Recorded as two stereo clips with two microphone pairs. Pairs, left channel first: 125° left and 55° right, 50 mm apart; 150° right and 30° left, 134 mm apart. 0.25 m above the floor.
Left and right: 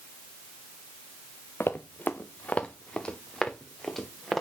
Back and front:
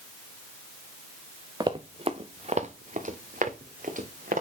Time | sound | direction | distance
1.6 | running footsteps | 90° left | 1.3 m